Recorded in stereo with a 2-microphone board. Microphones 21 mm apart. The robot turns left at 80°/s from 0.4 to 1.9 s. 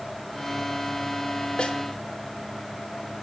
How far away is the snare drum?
About 3 m.